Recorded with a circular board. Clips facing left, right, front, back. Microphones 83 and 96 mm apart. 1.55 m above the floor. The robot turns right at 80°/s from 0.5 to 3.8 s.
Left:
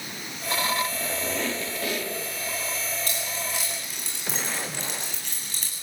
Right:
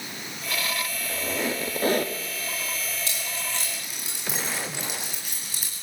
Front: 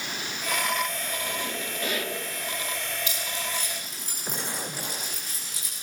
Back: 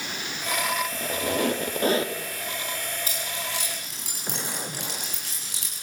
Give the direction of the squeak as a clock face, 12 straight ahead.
7 o'clock.